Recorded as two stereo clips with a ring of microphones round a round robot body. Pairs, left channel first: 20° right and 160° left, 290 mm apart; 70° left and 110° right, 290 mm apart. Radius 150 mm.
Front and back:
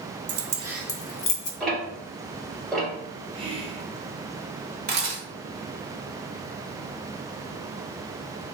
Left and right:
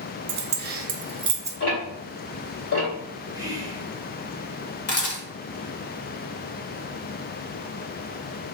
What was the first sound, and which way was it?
Keys jangling, 160° right.